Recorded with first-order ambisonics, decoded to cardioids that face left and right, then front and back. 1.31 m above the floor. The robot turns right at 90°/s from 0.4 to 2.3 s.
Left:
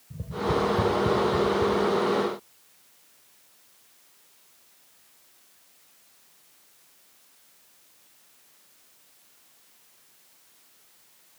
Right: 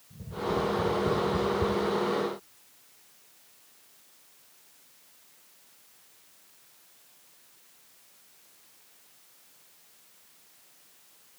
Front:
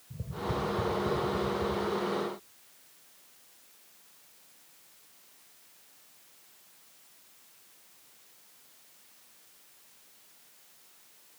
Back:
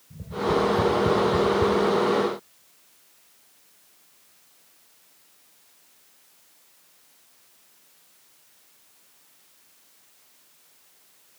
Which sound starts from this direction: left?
Tapping, at 0.1 s.